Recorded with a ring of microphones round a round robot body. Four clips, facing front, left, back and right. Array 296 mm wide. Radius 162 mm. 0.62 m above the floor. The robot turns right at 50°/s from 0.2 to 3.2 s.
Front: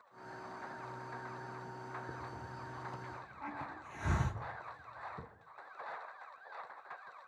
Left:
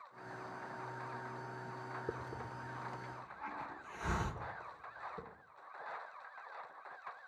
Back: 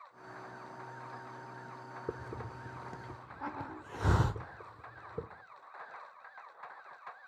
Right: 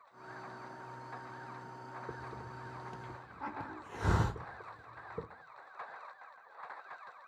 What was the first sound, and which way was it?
A hiss, 155° left.